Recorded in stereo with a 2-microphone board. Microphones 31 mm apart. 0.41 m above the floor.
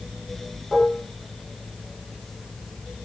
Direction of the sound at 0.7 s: 15° left (ahead or behind).